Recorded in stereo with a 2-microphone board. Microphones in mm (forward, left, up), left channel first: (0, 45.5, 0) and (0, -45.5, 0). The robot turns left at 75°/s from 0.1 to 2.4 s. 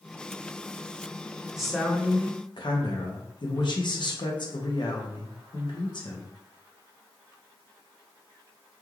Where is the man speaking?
175° right, 0.7 m; by 6.3 s 125° left, 0.7 m.